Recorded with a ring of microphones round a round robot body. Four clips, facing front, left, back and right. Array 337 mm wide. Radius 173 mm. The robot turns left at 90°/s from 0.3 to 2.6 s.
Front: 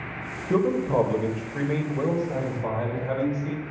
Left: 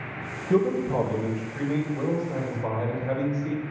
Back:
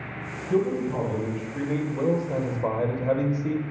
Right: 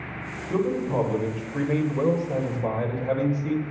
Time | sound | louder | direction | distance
0.5 | a man speaking | left 2 dB, front 2 dB | 30° left | 2.5 m